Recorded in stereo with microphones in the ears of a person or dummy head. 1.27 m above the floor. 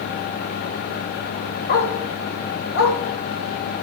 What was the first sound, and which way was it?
A dog barking, 70° left (ahead or behind).